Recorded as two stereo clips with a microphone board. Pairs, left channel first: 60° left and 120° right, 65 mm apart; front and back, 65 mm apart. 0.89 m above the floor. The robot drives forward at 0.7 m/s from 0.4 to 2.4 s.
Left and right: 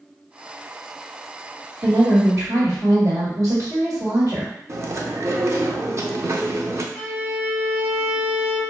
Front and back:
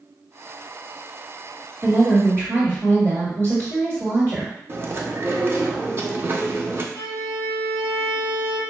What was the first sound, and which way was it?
A woman speaking, 115° right.